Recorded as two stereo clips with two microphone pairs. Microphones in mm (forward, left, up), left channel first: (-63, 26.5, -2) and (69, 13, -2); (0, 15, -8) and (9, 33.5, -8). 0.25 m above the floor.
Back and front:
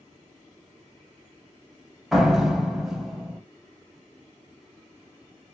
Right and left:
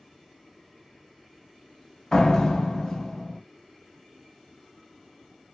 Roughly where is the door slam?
Right.